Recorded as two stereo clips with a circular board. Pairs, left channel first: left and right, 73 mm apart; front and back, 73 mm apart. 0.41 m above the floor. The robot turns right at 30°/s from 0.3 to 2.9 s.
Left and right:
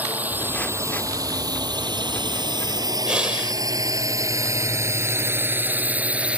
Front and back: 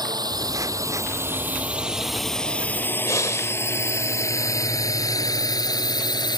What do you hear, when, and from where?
0.0 s a drone: 155° right; by 6.4 s 15° right
3.1 s breathing: 20° right